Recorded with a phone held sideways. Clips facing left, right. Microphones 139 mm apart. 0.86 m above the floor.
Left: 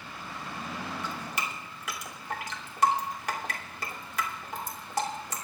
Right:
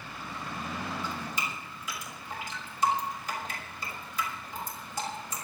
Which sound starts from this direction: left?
Dripping, at 1.0 s.